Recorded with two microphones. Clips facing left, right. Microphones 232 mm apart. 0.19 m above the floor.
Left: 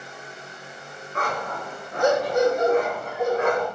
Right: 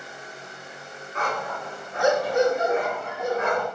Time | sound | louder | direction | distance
1.1 | a dog barking | left 1 dB | 55° left (ahead or behind) | 0.5 m